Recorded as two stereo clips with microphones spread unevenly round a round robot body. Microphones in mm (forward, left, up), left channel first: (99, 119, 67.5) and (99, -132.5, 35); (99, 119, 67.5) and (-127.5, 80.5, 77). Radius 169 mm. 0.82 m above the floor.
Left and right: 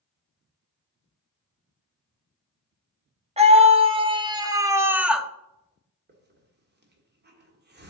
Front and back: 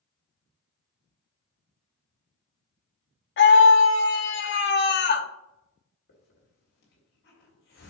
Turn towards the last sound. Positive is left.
turn(degrees=-40)